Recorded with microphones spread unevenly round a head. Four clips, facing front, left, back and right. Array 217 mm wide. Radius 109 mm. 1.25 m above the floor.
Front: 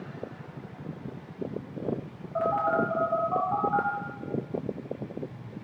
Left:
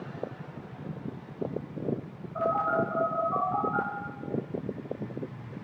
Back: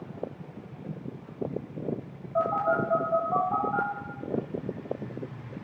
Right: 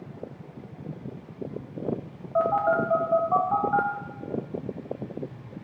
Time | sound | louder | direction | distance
2.4 | a phone buzzing | right 4 dB, even | 100° right | 3 m